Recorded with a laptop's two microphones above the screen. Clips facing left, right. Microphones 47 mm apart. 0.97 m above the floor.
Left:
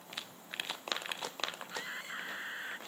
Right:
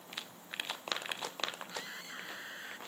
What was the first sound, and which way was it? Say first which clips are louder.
A scream: left 3 dB; 20° left (ahead or behind).